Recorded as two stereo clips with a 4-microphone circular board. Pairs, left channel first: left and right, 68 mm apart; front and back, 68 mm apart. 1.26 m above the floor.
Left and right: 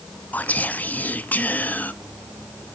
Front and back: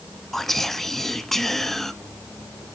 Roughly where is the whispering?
Left.